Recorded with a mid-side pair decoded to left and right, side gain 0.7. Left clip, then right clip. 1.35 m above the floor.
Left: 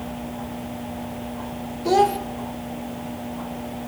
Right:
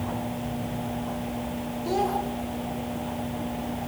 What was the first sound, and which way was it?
A child speaking, 40° left.